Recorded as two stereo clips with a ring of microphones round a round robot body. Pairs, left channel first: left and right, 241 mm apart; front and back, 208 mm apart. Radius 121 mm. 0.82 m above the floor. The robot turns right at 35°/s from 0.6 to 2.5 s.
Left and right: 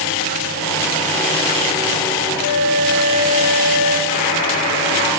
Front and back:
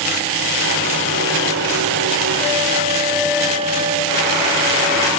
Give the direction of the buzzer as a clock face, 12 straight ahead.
11 o'clock.